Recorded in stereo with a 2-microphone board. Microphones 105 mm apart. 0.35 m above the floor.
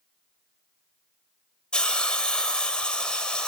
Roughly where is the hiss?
Centre.